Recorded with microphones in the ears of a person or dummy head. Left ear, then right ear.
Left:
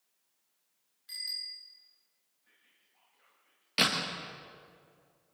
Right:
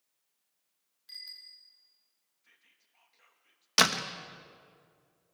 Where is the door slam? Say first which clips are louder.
Right 3 dB; 55° right (ahead or behind), 1.2 m.